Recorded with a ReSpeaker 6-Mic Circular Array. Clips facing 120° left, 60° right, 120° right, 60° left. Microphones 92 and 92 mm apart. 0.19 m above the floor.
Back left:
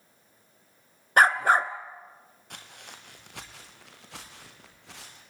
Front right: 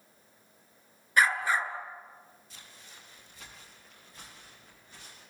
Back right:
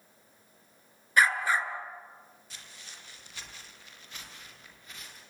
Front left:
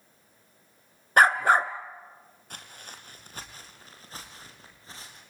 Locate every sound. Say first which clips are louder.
1.2 s a dog barking: back left 6 dB, front left 6 dB; 90° left, 1.0 m
2.5 s footsteps: back left 11 dB, front left 7 dB; 95° left, 4 m; by 5.2 s 120° left, 7 m